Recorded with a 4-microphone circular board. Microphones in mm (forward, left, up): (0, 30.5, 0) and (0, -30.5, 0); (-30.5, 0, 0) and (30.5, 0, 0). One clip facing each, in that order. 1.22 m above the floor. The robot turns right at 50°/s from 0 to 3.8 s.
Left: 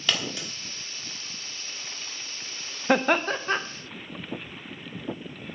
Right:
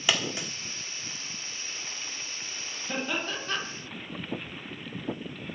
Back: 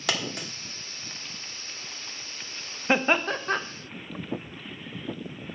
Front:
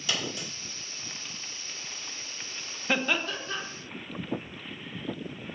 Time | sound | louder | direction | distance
0.1 | a dropped coin | right 1 dB, back 3 dB | 170° right | 1.4 m
2.9 | laughter | left 10 dB, back 5 dB | 110° left | 0.8 m